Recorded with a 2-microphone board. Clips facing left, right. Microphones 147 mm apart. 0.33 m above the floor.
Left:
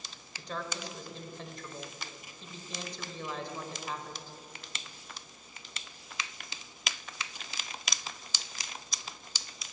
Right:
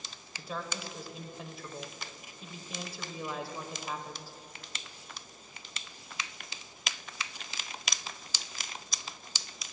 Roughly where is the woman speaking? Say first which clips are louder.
Even; centre.